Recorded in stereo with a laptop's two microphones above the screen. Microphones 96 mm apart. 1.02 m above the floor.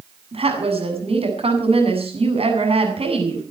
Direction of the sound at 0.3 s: 85° right.